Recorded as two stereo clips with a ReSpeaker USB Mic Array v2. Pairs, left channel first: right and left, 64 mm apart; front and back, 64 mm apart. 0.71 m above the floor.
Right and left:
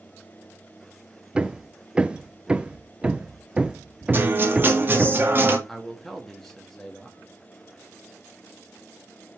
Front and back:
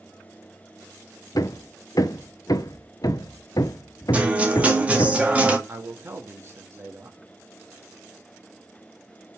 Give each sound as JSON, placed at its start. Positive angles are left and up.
{"t": 1.4, "sound": "hammering", "azimuth_deg": 20, "distance_m": 0.5}
{"t": 4.1, "sound": "a guitar", "azimuth_deg": 120, "distance_m": 1.4}
{"t": 5.7, "sound": "a man speaking", "azimuth_deg": -170, "distance_m": 1.0}